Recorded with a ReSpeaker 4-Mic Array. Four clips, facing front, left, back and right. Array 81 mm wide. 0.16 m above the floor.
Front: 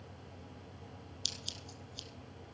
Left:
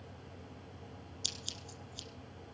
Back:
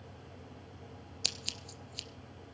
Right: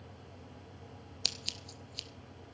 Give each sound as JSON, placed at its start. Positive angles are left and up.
{"t": 1.2, "sound": "scissors", "azimuth_deg": -145, "distance_m": 1.2}